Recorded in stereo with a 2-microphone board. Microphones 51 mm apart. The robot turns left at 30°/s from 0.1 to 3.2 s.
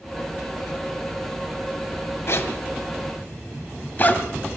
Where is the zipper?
60° left (ahead or behind), 2.0 m; by 4.2 s 35° left (ahead or behind), 2.0 m.